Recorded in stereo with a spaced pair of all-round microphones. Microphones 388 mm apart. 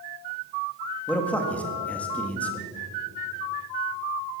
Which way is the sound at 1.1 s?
5° left (ahead or behind).